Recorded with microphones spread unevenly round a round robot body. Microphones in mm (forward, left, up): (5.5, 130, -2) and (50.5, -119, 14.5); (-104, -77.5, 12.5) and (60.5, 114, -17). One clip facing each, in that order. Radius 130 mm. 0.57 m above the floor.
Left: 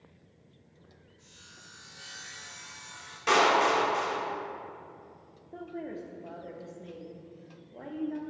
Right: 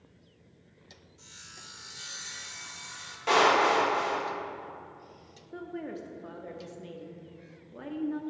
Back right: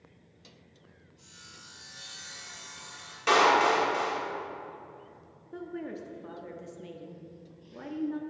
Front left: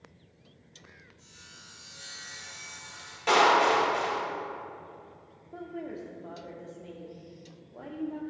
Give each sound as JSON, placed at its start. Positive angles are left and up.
{"t": 1.2, "sound": "sawing", "azimuth_deg": -60, "distance_m": 1.1}
{"t": 3.3, "sound": "a clap", "azimuth_deg": 165, "distance_m": 1.6}
{"t": 5.5, "sound": "a woman speaking", "azimuth_deg": -125, "distance_m": 0.6}